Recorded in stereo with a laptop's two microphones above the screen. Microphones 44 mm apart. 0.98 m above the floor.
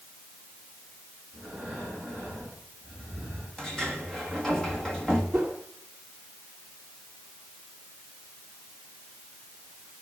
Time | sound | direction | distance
1.3 | breathing | 10° left (ahead or behind) | 9.5 m
3.6 | a sliding door | 15° left (ahead or behind) | 1.6 m
5.3 | a whoosh | 20° right (ahead or behind) | 2.5 m